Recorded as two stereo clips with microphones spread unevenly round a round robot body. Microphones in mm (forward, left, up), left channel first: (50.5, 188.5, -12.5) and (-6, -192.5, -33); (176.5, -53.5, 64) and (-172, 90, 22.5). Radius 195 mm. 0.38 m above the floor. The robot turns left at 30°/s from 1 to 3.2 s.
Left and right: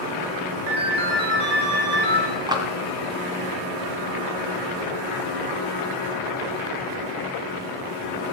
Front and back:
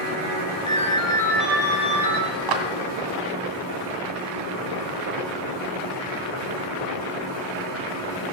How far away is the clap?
About 2 m.